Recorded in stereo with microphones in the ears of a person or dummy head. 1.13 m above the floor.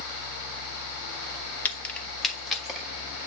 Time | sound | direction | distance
1.6 | keys jangling | 10° left (ahead or behind) | 0.6 m